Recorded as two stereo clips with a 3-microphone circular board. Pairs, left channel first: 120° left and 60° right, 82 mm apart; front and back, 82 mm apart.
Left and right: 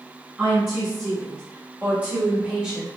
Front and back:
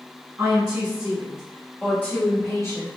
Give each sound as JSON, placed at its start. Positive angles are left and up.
{"t": 0.4, "sound": "a woman speaking", "azimuth_deg": -120, "distance_m": 1.6}